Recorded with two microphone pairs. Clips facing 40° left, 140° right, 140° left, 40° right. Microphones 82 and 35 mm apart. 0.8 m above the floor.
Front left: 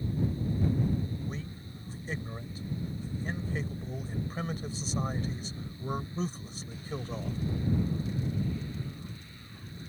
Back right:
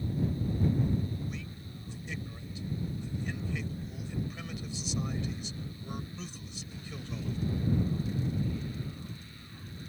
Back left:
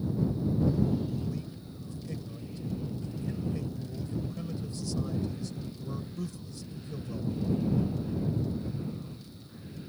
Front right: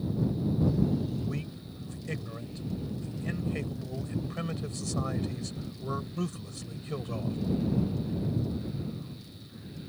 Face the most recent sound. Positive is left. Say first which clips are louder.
# front left 1 dB, front right 1 dB
turn(degrees=-15)